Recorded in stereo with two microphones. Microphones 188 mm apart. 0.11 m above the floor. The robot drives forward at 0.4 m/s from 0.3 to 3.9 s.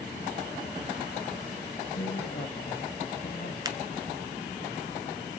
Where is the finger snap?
20° right (ahead or behind), 0.9 m.